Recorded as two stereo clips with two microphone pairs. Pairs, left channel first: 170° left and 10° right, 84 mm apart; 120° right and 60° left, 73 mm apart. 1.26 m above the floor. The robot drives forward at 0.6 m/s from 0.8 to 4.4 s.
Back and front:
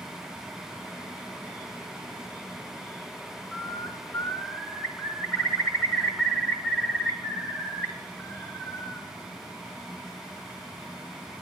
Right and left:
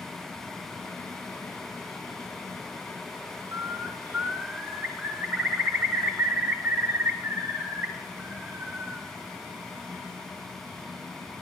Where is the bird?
90° left, 1.2 m; by 9.1 s 125° left, 1.3 m.